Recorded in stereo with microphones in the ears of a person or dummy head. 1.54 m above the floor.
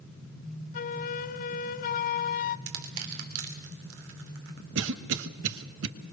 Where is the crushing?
75° right (ahead or behind), 3 m.